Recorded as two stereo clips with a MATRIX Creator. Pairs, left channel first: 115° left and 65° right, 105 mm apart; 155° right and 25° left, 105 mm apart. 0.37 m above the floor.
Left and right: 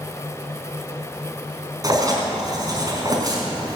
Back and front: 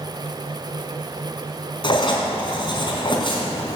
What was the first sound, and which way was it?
Writing, 120° right.